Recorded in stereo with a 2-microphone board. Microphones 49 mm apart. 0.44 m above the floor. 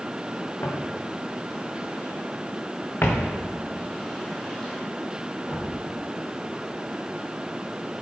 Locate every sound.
0.6 s footsteps: 60° left (ahead or behind), 3.5 m; by 5.8 s 5° right (ahead or behind), 5 m